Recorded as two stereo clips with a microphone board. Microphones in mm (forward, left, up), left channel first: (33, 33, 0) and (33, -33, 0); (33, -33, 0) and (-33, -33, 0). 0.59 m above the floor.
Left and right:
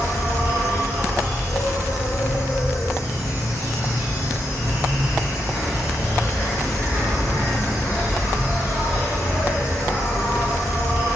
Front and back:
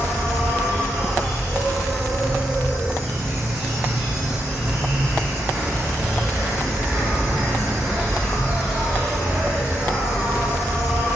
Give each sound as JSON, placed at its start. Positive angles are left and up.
{"t": 0.0, "sound": "an insect", "azimuth_deg": 120, "distance_m": 3.0}